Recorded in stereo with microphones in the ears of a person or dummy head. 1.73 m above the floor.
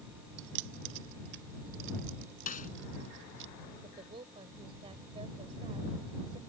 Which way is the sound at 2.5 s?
45° left (ahead or behind).